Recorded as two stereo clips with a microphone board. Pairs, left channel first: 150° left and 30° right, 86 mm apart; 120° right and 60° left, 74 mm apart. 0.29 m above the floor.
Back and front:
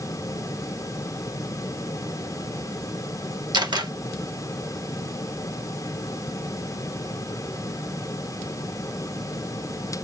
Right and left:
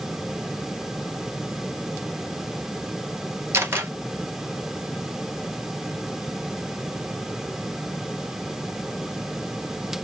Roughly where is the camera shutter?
Ahead.